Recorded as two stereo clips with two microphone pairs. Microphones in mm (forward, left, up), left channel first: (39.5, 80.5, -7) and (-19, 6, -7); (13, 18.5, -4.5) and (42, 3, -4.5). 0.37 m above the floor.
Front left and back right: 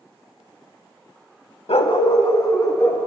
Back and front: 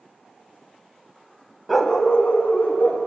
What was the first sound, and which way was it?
A dog barking, 60° left.